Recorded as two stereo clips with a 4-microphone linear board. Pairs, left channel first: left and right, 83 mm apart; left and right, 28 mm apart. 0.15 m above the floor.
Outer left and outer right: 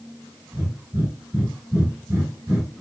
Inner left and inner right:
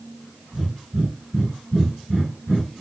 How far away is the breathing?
About 2 m.